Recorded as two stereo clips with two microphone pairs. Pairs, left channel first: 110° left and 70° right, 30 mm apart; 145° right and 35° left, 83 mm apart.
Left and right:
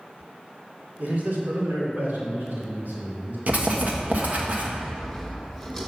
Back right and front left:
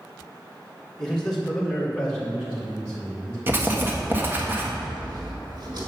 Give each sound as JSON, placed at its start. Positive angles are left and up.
{"t": 1.0, "sound": "a man speaking", "azimuth_deg": -60, "distance_m": 2.0}
{"t": 3.5, "sound": "writing", "azimuth_deg": -30, "distance_m": 1.2}
{"t": 4.8, "sound": "sawing", "azimuth_deg": 20, "distance_m": 2.0}